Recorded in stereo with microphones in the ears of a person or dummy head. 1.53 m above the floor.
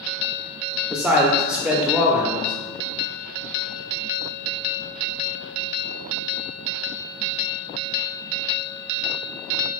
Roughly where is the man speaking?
Centre.